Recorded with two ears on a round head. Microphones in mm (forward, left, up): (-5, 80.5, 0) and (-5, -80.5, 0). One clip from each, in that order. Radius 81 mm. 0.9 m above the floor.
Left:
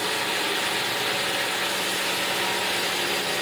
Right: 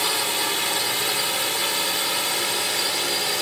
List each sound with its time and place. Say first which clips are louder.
0.0 s a drone: right 2 dB; 50° right (ahead or behind); by 3.4 s 55° right (ahead or behind)